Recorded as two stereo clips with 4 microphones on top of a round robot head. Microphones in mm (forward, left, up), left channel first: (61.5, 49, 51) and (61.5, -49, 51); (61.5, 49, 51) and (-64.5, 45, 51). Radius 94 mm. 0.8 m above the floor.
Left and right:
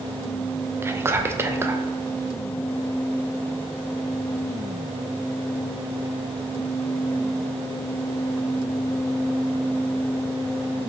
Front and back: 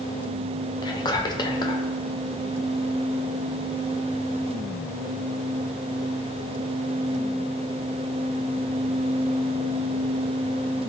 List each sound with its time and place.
0.8 s whispering: 35° right, 0.6 m